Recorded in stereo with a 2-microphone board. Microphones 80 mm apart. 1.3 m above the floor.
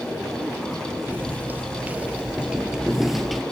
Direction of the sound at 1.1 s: 25° right (ahead or behind).